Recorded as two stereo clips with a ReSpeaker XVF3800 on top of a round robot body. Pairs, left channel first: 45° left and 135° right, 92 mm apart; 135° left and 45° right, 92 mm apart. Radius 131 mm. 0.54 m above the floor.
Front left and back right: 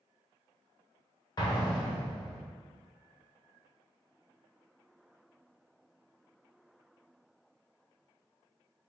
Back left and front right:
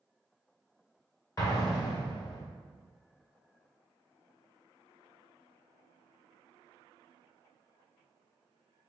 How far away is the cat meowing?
I don't hear a cat meowing.